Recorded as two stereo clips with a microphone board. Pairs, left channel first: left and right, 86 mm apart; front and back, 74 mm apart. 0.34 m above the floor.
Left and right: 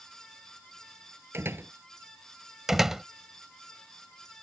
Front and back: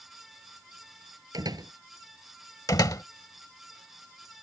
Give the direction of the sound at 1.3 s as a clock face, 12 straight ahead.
5 o'clock.